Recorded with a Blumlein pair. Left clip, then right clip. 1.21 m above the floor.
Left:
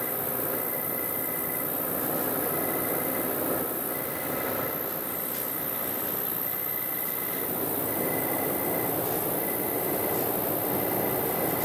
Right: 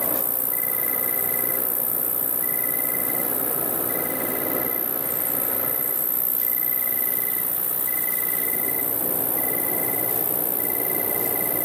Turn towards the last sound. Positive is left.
turn(degrees=-30)